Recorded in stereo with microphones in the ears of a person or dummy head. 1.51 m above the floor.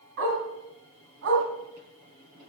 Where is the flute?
I don't hear a flute.